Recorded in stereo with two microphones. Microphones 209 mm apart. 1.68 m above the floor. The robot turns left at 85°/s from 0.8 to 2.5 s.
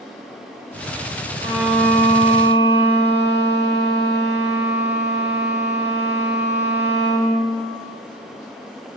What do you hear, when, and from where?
1.4 s a violin: 155° right, 1.7 m; by 7.5 s 115° left, 1.7 m